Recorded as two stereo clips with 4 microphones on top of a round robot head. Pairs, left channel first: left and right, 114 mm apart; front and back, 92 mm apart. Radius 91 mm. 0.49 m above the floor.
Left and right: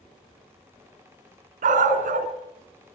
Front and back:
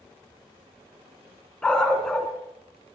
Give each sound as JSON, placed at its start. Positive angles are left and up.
{"t": 1.6, "sound": "a dog barking", "azimuth_deg": -80, "distance_m": 2.5}